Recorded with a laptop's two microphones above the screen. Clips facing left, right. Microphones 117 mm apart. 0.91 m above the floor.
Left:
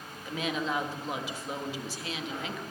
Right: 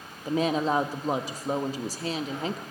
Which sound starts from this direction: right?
A woman speaking, at 0.2 s.